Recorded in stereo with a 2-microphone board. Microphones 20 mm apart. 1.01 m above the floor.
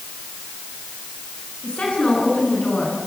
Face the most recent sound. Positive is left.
turn(degrees=70)  # may be behind; listen again after turning